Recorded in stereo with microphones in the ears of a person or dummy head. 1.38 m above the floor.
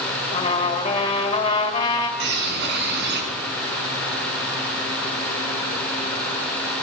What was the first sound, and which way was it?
A trumpet, 25° left (ahead or behind).